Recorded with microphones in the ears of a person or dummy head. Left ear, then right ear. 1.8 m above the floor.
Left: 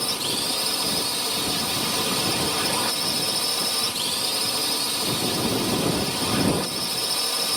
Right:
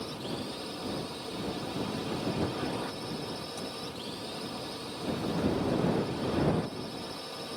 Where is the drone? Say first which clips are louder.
Left 12 dB; 65° left (ahead or behind).